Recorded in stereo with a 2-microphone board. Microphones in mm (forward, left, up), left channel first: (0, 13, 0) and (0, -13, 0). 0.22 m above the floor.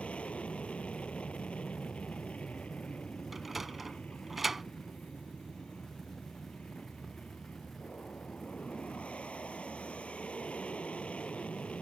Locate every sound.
0.0 s an aircraft: 50° left (ahead or behind)
3.3 s a sliding door: 10° right (ahead or behind)